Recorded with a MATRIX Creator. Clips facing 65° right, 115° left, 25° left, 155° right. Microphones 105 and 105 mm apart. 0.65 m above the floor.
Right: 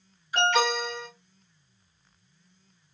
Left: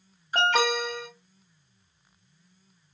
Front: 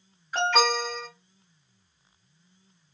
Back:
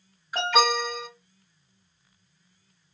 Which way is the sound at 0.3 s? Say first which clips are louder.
Even, back 1 dB; 120° left.